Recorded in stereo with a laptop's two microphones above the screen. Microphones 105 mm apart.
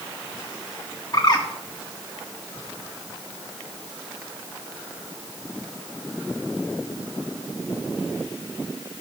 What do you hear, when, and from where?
1.1 s a bird: 40° left (ahead or behind), 1.2 m